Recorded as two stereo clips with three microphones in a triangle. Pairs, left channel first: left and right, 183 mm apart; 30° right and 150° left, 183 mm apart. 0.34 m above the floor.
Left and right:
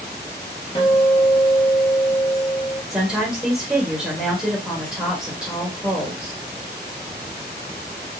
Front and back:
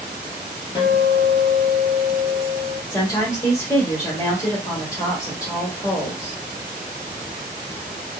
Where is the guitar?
30° left, 1.7 m.